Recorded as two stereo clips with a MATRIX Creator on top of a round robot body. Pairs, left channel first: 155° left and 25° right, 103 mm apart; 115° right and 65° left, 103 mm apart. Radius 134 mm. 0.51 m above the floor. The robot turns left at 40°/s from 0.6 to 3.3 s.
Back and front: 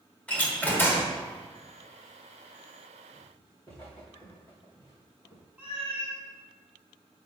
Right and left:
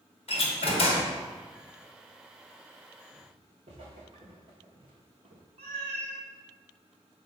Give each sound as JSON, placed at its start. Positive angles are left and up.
{"t": 0.3, "sound": "a door slam", "azimuth_deg": -125, "distance_m": 1.9}
{"t": 3.1, "sound": "footsteps", "azimuth_deg": 95, "distance_m": 3.0}
{"t": 5.6, "sound": "a cat meowing", "azimuth_deg": 55, "distance_m": 3.0}